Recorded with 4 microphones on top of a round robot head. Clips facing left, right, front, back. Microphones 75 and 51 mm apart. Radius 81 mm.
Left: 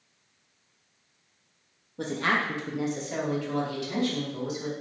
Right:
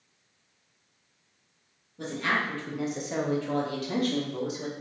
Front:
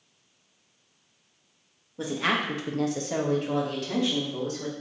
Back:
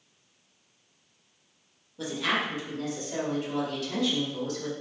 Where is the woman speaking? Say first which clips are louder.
Left 2 dB, front 2 dB; 60° left, 1.0 m; by 4.7 s 55° right, 2 m.